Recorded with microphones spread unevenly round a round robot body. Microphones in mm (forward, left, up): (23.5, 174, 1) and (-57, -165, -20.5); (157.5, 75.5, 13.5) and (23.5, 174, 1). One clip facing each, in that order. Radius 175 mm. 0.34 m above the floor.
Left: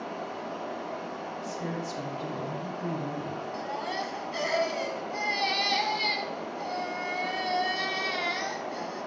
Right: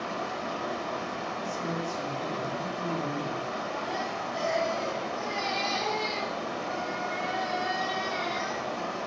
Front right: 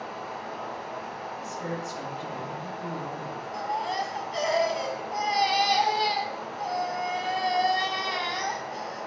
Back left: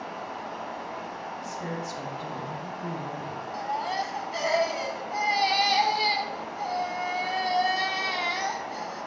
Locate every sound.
0.0 s running water: 130° right, 0.8 m
1.4 s a woman speaking: 80° left, 2.5 m
3.5 s a baby crying: 60° left, 1.2 m